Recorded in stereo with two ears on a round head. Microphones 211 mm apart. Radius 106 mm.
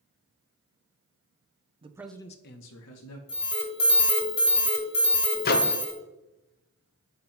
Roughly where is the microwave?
Left.